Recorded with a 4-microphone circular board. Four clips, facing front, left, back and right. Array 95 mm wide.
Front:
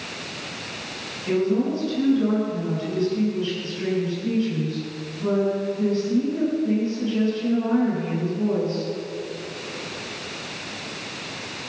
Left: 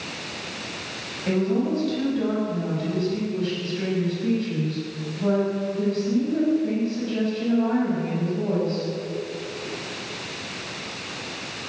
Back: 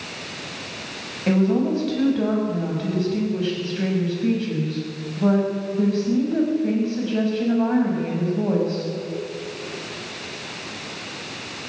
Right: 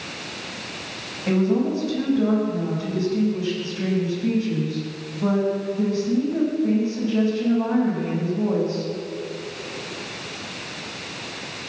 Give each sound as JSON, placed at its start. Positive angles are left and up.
{"t": 1.3, "sound": "a woman speaking", "azimuth_deg": -165, "distance_m": 6.0}